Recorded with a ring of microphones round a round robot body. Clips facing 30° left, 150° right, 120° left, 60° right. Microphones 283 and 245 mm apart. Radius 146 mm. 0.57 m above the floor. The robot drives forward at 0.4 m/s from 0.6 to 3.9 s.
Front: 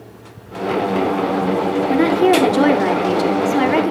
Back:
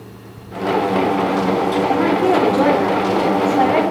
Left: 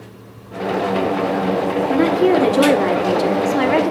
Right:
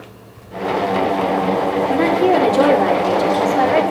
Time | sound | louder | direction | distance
1.9 | a woman speaking | front 4 dB, left 1 dB | 50° left | 1.6 m